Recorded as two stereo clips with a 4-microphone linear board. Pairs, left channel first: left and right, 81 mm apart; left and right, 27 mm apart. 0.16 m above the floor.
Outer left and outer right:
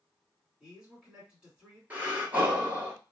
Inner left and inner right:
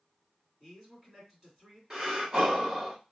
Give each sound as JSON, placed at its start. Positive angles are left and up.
{"t": 0.6, "sound": "a man speaking", "side_deg": -10, "distance_m": 1.8}
{"t": 1.9, "sound": "breathing", "side_deg": -20, "distance_m": 1.1}